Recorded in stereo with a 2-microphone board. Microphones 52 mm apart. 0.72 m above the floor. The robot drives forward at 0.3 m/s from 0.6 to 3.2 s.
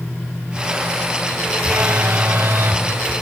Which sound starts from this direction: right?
A phone buzzing, at 1.6 s.